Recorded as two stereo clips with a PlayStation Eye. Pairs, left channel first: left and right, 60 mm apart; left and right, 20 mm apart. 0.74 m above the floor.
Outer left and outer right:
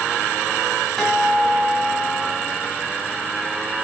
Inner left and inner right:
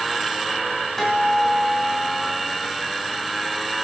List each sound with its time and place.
1.0 s a guitar: 5° right (ahead or behind), 3 m